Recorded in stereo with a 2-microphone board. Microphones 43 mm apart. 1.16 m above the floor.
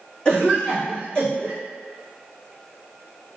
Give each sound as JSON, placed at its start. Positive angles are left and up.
{"t": 0.2, "sound": "a cough", "side_deg": 20, "distance_m": 1.8}